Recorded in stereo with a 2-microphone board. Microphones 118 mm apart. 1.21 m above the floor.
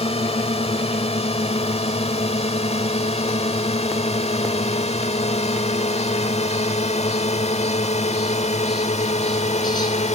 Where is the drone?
60° left (ahead or behind); by 10.2 s 75° left (ahead or behind).